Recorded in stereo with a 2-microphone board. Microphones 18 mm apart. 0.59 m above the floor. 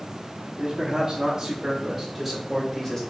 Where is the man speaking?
45° right (ahead or behind), 1.5 m; by 3.0 s 20° left (ahead or behind), 1.3 m.